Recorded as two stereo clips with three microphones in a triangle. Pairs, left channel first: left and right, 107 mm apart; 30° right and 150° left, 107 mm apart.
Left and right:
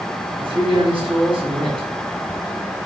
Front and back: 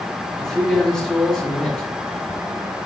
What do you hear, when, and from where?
0.4 s a man speaking: 115° right, 1.4 m